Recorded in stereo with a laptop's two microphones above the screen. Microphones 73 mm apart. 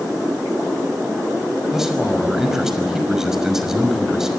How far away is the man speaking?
About 6 m.